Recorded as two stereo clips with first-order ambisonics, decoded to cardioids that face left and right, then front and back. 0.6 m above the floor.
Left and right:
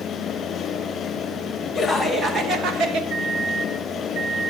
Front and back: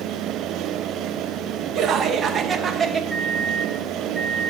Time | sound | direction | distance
1.8 | laughter | 160° left | 0.6 m
3.1 | a microwave | 95° right | 0.7 m